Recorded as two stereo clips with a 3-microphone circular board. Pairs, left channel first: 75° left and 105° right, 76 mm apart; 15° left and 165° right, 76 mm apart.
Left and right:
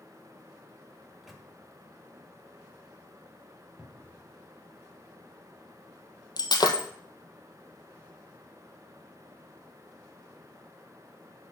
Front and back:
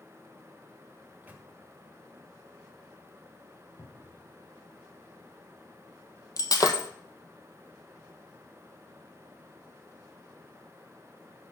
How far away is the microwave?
About 1.1 m.